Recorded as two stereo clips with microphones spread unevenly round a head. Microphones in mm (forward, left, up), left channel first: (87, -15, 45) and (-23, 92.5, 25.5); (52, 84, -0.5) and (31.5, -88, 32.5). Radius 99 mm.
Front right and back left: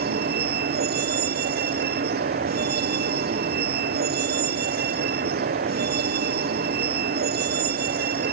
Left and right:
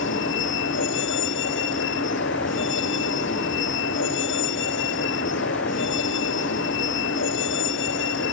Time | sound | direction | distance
0.0 | a vehicle | 115° left | ?